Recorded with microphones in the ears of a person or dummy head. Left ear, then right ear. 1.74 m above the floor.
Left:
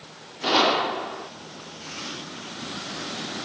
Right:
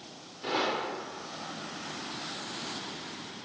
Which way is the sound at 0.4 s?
45° left (ahead or behind).